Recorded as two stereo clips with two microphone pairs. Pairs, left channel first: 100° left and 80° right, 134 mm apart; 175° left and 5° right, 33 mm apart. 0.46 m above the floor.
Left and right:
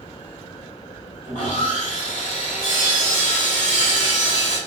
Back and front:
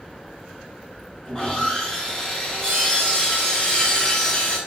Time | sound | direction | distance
1.2 | sawing | 105° left | 2.5 m